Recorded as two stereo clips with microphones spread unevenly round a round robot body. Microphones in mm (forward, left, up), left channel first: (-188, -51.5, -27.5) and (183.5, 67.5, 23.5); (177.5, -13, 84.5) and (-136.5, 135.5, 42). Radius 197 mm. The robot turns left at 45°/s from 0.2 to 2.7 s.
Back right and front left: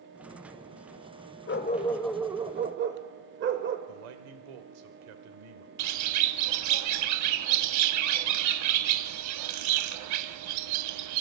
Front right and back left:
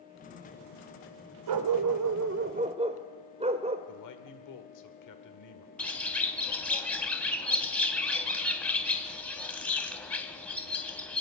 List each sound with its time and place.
1.5 s a dog barking: 140° left, 0.9 m; by 3.8 s 80° left, 0.9 m
3.9 s a man speaking: 10° left, 1.7 m
5.8 s a bird: 60° left, 0.6 m